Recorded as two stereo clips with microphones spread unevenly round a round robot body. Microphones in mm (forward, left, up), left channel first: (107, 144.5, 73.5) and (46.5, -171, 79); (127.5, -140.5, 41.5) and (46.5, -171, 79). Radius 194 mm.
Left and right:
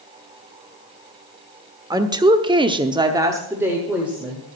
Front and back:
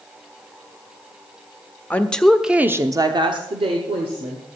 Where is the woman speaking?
25° right, 1.5 m; by 4.5 s 170° left, 2 m.